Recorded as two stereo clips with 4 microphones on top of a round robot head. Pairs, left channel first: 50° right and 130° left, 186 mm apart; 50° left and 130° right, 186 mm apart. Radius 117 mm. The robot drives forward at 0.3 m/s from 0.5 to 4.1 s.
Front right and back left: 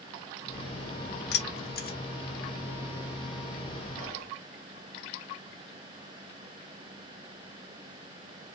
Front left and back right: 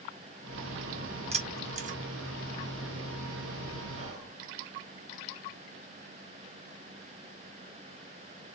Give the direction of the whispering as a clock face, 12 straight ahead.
6 o'clock.